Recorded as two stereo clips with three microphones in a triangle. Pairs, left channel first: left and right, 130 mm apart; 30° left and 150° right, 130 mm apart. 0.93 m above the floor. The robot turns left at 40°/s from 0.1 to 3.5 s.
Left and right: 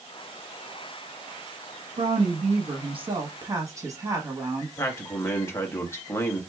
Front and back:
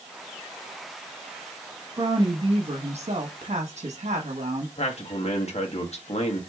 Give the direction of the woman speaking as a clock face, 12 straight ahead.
3 o'clock.